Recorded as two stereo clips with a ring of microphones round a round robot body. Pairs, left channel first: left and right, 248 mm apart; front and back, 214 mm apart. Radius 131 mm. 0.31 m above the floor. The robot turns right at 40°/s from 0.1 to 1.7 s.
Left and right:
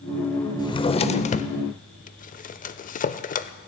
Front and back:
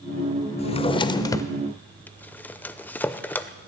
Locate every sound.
0.6 s a drawer: 30° left, 0.6 m; by 3.7 s 75° left, 0.6 m